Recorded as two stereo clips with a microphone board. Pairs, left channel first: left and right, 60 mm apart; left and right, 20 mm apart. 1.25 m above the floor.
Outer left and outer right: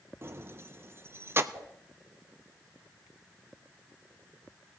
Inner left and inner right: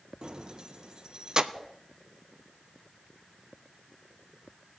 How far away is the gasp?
No gasp in this recording.